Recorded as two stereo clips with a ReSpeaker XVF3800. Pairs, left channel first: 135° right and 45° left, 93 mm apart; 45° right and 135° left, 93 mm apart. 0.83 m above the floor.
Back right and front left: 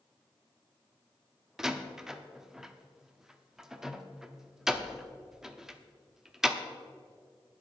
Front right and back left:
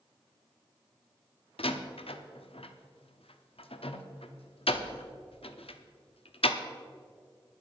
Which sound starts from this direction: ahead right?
A door slam, at 1.6 s.